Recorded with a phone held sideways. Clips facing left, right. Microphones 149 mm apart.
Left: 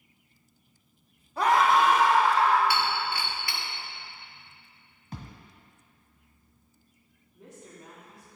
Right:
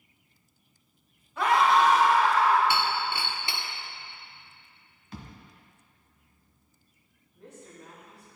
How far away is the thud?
About 1.6 m.